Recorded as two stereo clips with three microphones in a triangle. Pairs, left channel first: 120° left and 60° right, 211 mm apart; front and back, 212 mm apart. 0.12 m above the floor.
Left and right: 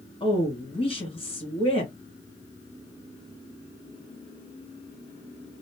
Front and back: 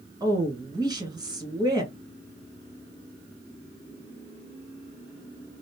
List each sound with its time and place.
0.2 s a woman speaking: 135° left, 1.6 m